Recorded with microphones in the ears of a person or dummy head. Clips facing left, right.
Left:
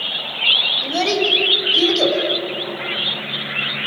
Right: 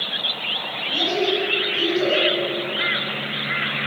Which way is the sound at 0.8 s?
85° left.